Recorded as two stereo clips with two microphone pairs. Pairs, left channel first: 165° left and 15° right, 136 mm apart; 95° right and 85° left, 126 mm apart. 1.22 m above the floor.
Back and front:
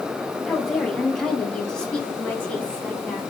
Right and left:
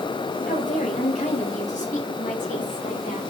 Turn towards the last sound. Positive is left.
turn(degrees=-115)